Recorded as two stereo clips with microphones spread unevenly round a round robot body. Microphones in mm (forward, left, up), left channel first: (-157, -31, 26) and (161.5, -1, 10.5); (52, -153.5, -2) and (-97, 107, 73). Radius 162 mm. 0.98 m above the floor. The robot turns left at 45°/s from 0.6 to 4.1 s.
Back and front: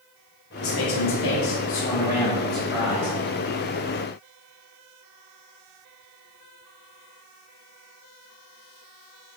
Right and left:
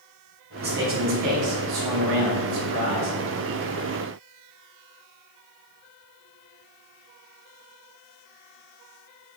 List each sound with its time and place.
0.6 s a man speaking: 175° right, 2.5 m; by 3.2 s 70° left, 2.5 m